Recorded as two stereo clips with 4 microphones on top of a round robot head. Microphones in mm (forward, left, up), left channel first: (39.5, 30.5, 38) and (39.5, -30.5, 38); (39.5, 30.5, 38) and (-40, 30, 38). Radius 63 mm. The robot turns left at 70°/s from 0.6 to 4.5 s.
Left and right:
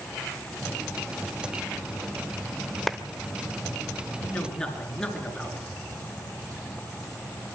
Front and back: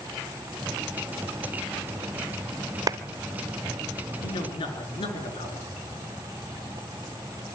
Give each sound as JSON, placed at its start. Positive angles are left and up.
{"t": 2.9, "sound": "a clap", "azimuth_deg": 180, "distance_m": 0.7}
{"t": 4.2, "sound": "a man speaking", "azimuth_deg": 30, "distance_m": 5.5}